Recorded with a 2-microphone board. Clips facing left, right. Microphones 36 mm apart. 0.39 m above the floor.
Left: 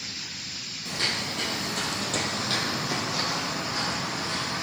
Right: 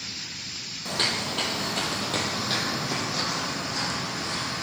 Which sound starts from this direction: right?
Footsteps, at 0.8 s.